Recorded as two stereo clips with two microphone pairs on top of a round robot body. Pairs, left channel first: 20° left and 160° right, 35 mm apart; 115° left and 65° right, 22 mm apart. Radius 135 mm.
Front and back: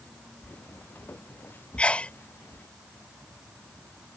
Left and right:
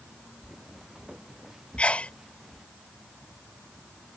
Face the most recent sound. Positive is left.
turn(degrees=80)